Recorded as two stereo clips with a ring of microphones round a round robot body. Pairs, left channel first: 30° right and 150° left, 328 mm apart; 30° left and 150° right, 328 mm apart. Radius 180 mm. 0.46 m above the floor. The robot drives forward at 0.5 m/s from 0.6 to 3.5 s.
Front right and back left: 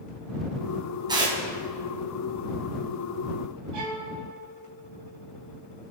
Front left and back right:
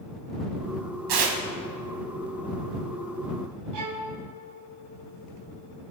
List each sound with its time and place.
1.1 s tearing paper: 135° right, 2.5 m
3.7 s a violin: straight behind, 3 m